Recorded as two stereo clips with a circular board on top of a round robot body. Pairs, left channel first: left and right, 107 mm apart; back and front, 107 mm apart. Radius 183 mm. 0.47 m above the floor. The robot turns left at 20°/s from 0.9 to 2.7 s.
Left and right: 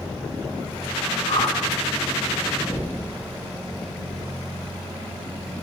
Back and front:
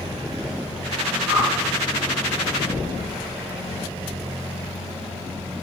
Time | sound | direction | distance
1.3 | a whoosh | 130° left | 3 m
2.6 | knocking | 140° left | 3 m